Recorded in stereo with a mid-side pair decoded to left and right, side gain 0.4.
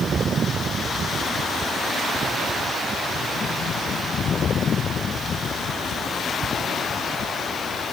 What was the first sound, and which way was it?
Only background noise.